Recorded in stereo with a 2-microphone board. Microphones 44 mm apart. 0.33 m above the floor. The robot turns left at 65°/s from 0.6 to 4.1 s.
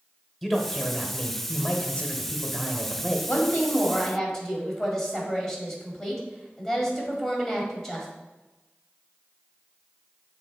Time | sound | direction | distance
0.4 | a man speaking | 5° left (ahead or behind) | 1.0 m
3.3 | a woman speaking | 65° left | 1.7 m